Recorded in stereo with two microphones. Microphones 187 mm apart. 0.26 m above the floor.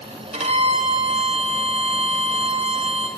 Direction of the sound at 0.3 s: 40° right (ahead or behind).